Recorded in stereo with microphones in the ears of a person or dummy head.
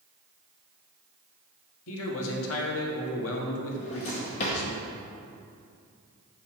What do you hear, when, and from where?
1.9 s a man speaking: 80° left, 1.4 m
3.8 s a drawer: 30° left (ahead or behind), 0.9 m